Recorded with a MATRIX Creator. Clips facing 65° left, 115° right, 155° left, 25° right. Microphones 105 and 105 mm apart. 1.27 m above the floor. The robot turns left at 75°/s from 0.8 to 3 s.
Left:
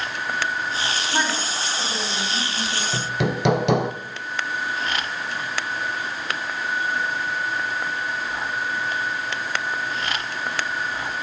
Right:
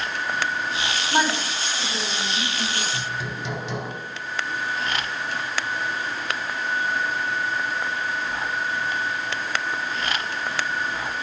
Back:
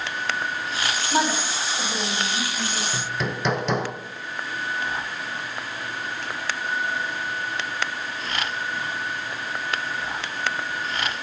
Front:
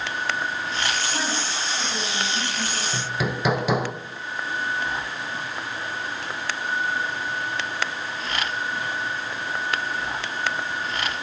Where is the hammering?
65° left, 0.7 m; by 3.9 s 60° left, 0.7 m.